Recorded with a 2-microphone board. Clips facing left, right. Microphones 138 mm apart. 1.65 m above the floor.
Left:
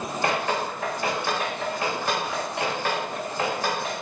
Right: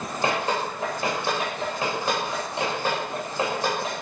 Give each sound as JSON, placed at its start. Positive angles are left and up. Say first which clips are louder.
{"t": 0.2, "sound": "dripping", "louder": "right 1 dB", "side_deg": -25, "distance_m": 3.0}